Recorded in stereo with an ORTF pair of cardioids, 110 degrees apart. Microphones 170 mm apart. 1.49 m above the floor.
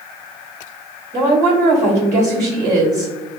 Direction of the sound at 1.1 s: 50° right.